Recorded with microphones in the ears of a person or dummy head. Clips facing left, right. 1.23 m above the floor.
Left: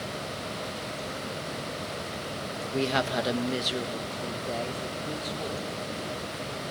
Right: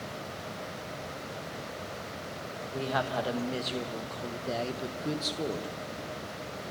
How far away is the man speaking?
About 1.4 m.